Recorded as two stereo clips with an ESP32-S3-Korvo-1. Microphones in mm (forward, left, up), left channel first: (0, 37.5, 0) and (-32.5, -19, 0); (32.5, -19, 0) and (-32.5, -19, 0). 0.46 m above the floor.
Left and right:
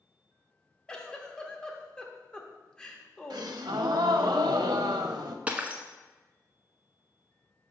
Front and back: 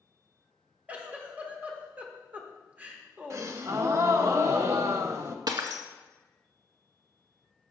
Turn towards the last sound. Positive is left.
turn(degrees=170)